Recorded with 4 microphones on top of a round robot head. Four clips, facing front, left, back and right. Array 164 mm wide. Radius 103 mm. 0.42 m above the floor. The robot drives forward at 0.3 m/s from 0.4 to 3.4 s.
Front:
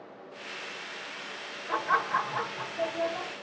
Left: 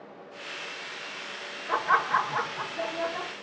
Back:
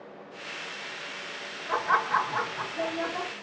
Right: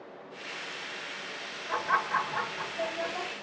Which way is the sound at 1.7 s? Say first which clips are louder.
Left 4 dB, back 2 dB; 105° left.